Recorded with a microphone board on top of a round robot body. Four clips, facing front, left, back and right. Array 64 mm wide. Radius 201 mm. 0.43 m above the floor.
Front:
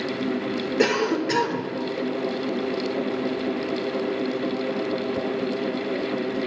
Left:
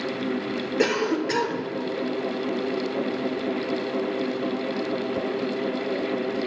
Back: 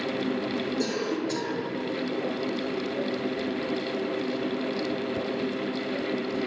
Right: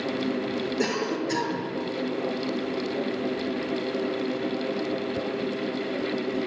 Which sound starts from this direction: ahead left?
A cough, at 0.8 s.